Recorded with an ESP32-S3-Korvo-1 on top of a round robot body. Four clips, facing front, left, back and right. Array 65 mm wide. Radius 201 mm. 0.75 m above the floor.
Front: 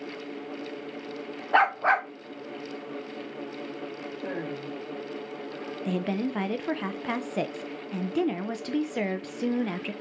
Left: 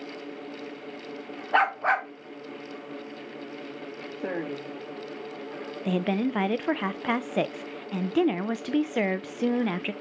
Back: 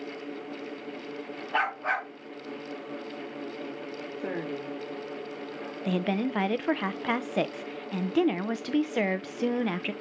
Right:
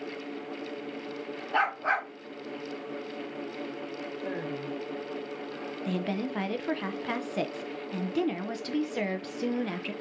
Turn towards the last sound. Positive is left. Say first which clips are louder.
# left 6 dB, back 1 dB
turn(degrees=125)